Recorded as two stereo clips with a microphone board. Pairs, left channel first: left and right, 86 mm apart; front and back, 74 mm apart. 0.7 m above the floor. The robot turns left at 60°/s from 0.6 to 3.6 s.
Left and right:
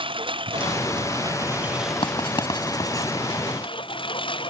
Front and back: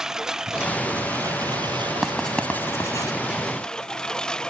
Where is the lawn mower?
100° right; by 4.5 s 80° left.